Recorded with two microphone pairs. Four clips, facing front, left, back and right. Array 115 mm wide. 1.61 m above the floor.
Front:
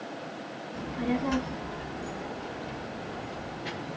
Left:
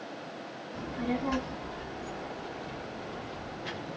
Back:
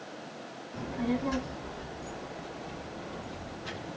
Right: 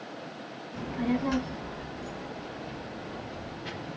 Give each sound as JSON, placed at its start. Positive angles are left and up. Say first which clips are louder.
{"t": 0.7, "sound": "a child speaking", "louder": "right 3 dB, front 1 dB", "azimuth_deg": -95, "distance_m": 0.9}